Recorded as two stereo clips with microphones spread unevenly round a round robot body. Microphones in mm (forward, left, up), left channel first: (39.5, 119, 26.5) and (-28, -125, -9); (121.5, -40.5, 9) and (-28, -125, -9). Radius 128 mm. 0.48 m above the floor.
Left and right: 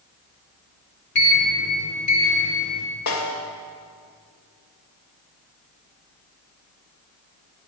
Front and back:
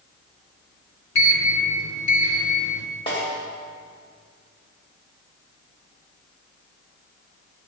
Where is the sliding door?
20° left, 3 m.